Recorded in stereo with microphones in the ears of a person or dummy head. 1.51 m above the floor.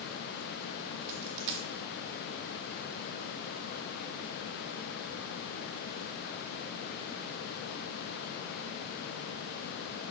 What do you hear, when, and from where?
1.1 s a dropped coin: 55° right (ahead or behind), 1.9 m